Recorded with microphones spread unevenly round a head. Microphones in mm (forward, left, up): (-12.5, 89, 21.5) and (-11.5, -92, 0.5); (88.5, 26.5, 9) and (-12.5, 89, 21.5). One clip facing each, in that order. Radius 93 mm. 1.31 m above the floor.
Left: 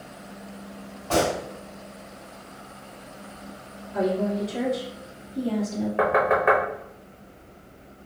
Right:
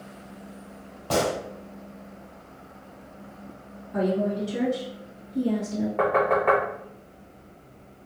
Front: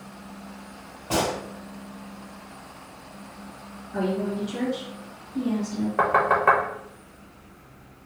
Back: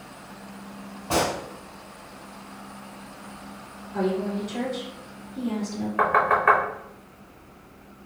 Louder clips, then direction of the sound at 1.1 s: Left 2 dB, back 1 dB; 130° right.